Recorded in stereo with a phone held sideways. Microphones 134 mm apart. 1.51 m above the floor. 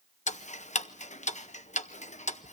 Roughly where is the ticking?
Left.